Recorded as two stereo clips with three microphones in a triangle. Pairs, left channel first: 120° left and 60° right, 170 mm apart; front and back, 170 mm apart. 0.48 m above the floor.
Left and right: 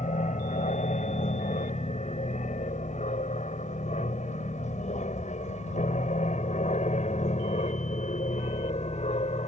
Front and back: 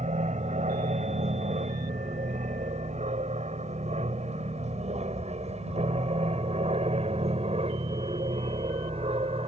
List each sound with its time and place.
0.0 s an aircraft: 150° left; by 9.5 s 140° left